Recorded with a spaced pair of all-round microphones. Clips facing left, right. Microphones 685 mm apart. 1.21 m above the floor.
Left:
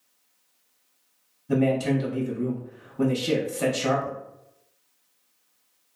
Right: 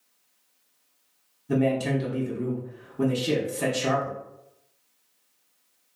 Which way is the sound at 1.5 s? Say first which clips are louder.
Left 2 dB; centre (ahead or behind).